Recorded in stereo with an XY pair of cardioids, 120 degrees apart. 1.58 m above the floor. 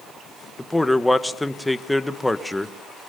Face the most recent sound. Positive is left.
turn(degrees=5)